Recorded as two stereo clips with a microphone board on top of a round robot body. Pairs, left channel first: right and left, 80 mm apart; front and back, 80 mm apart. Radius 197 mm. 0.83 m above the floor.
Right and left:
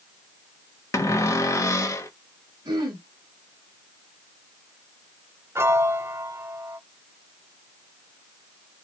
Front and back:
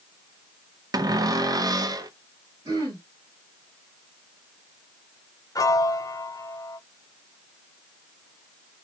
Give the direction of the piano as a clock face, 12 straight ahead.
11 o'clock.